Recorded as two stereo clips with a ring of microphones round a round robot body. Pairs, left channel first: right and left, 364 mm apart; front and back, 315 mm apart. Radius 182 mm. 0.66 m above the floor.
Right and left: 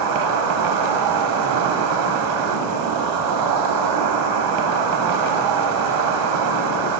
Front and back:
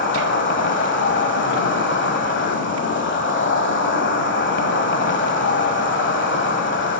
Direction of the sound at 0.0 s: 55° left.